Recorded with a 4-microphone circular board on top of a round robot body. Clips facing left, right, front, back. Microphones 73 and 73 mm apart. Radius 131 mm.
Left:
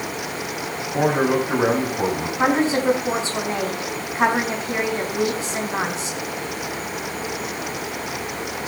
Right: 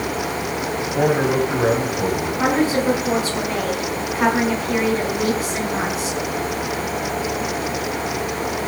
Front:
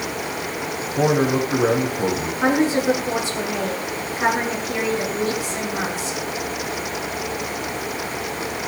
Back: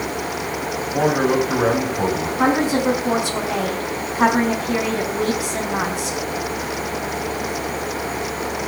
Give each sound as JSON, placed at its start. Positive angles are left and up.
{"t": 0.9, "sound": "a man speaking", "azimuth_deg": 145, "distance_m": 4.5}
{"t": 2.4, "sound": "a woman speaking", "azimuth_deg": 150, "distance_m": 5.0}